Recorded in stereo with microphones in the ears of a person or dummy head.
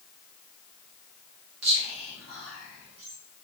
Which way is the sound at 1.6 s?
80° right.